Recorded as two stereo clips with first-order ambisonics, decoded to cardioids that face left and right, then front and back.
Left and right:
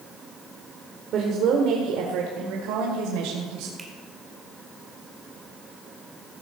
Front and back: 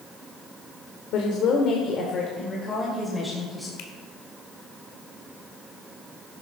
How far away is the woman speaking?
About 1.9 m.